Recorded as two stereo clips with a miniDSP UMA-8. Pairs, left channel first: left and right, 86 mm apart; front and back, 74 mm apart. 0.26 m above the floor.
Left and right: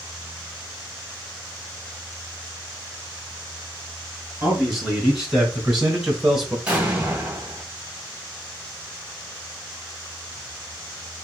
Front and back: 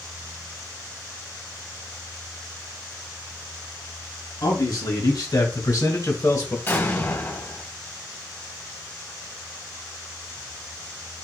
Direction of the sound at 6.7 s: 20° right.